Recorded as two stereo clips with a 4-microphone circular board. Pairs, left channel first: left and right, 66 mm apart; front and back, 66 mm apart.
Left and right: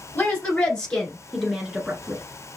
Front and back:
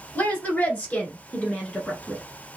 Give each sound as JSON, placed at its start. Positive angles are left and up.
{"t": 0.1, "sound": "a woman speaking", "azimuth_deg": 45, "distance_m": 1.5}